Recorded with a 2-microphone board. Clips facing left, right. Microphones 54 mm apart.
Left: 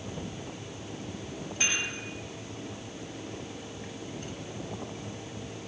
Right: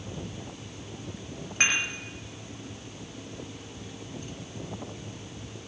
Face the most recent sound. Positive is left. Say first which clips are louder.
# right 5 dB
turn(degrees=-65)  # may be behind; listen again after turning